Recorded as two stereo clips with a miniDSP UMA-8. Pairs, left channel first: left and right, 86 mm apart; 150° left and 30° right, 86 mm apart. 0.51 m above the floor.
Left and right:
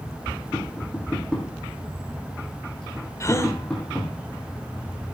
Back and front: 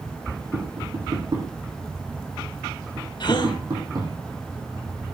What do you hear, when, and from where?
0.5 s tapping: 10° left, 10 m
3.2 s a gasp: 140° left, 1.9 m